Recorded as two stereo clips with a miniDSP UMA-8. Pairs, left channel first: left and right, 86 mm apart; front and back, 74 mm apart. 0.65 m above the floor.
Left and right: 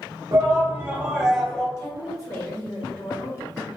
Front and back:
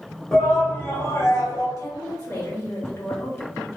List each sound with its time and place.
0.3 s a shout: 75° right, 0.7 m; by 1.7 s 15° left, 0.8 m
1.8 s a woman speaking: 40° left, 1.1 m